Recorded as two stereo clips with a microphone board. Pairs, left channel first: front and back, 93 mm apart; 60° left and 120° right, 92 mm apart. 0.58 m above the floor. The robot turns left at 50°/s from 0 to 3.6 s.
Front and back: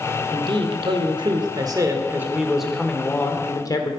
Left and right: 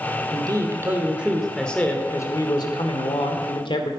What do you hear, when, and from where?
0.3 s a man speaking: 150° right, 1.5 m; by 3.9 s 45° left, 1.5 m